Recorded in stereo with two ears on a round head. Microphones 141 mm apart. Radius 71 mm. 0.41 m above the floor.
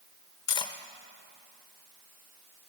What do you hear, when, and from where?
0.5 s cutlery clinking: 30° left (ahead or behind), 0.6 m